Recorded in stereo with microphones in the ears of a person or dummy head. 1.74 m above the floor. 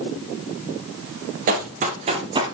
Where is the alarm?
I don't hear an alarm.